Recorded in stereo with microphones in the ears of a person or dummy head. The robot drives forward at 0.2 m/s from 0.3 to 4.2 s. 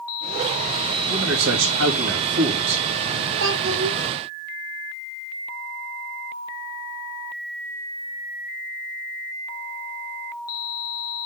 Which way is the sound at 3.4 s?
75° right (ahead or behind).